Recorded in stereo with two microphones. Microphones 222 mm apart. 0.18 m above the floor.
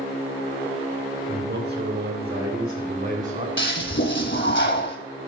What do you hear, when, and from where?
1.3 s a man speaking: 50° right (ahead or behind), 2.5 m; by 3.5 s 35° right (ahead or behind), 1.8 m
3.6 s a toilet flushing: 50° left (ahead or behind), 1.0 m